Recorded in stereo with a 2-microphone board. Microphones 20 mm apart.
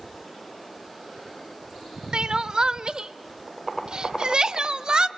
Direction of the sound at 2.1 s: 45° right (ahead or behind).